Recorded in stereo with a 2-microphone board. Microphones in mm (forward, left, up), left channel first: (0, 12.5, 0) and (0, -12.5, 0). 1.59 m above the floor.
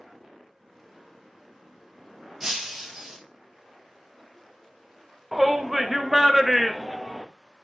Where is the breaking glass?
10° right (ahead or behind), 1.7 m.